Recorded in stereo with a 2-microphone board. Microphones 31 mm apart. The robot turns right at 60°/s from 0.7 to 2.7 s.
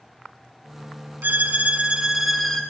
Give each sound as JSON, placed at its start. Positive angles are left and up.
{"t": 1.2, "sound": "a violin", "azimuth_deg": -65, "distance_m": 0.7}